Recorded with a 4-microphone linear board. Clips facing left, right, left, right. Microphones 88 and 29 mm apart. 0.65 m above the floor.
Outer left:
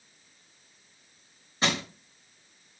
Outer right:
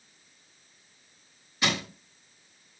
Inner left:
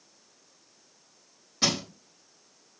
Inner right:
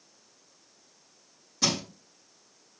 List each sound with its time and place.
1.6 s crushing: 35° left (ahead or behind), 3 m